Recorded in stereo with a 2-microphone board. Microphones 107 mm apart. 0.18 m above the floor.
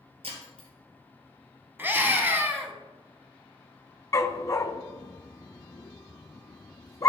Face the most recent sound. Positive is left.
turn(degrees=35)  # may be behind; listen again after turning